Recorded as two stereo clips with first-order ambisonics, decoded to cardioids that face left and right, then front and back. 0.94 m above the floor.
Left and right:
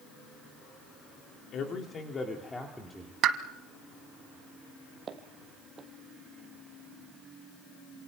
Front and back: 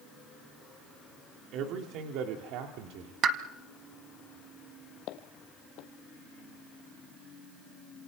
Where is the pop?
130° right, 1.2 m.